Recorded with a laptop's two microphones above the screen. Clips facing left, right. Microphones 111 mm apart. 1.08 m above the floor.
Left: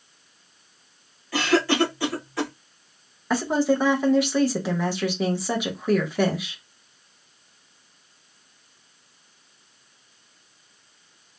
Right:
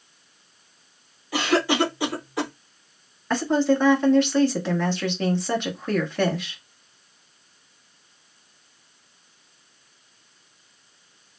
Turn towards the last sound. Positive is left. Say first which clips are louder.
# right 1 dB
turn(degrees=10)  # may be behind; listen again after turning